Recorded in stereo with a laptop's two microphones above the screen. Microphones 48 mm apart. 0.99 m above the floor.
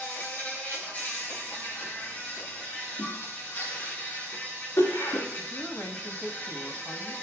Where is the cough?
65° left (ahead or behind), 2 m.